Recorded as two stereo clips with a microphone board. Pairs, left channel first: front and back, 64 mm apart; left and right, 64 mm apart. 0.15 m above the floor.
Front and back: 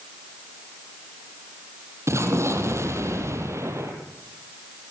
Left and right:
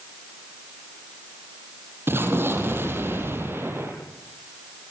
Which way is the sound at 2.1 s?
140° right.